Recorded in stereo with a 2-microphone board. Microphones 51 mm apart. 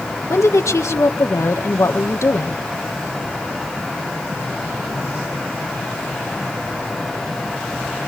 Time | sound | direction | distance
0.3 | a woman speaking | 75° left (ahead or behind) | 1.9 m